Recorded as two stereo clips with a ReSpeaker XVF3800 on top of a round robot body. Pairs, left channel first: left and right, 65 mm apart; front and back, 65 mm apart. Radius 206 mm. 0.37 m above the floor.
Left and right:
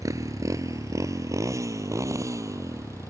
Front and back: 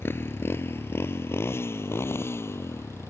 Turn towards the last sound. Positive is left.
turn(degrees=-50)